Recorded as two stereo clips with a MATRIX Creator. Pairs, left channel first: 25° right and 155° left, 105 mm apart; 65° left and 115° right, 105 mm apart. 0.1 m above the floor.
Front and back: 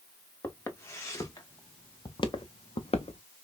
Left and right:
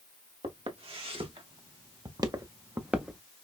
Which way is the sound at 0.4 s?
90° right.